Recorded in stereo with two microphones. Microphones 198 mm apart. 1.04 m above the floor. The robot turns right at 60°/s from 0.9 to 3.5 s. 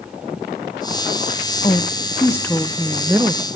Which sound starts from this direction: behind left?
A woman speaking, at 1.6 s.